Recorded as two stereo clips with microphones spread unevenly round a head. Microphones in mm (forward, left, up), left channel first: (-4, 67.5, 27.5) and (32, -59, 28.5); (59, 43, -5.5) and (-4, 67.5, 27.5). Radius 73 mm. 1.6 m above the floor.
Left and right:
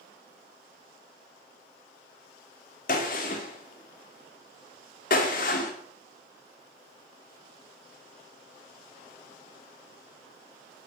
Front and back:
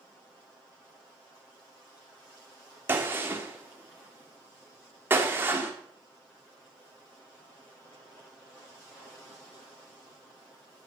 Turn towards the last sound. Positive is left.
turn(degrees=130)